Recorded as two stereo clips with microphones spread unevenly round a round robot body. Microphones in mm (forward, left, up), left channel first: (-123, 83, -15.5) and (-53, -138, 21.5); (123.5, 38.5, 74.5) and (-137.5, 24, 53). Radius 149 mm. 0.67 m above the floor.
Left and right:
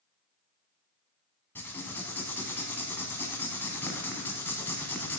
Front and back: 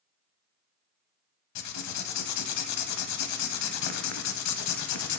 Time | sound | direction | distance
1.6 | writing | 20° left | 0.9 m